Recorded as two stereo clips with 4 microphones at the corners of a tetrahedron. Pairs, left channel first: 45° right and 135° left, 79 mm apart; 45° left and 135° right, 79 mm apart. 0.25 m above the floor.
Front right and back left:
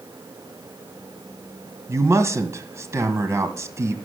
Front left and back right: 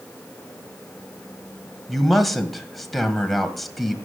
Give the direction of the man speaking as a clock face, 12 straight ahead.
8 o'clock.